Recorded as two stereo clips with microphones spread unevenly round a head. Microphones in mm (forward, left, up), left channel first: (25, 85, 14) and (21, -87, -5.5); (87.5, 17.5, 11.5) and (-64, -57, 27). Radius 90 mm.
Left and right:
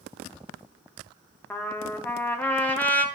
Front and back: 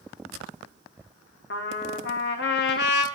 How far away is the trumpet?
About 0.9 m.